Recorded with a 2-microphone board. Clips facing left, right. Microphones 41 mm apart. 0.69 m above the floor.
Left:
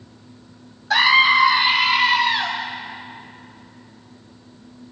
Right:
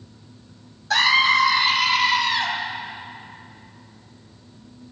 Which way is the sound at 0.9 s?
10° left (ahead or behind).